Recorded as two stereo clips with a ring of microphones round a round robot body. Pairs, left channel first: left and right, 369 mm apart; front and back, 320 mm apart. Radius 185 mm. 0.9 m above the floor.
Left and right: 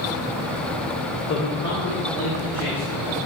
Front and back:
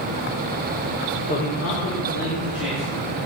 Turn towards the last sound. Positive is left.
turn(degrees=15)